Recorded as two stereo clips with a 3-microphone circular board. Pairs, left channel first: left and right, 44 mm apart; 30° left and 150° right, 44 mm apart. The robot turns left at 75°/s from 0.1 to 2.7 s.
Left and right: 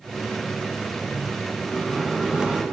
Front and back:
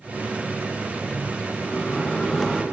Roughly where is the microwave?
Ahead left.